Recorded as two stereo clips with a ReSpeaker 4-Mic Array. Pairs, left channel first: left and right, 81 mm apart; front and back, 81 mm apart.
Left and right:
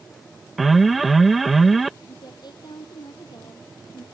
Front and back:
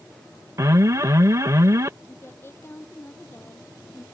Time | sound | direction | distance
0.6 | an alarm | straight behind | ?
2.0 | a woman speaking | 60° left | ?